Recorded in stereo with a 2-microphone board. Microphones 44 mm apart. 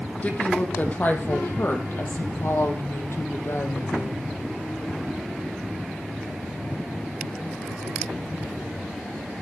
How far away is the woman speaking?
About 5 m.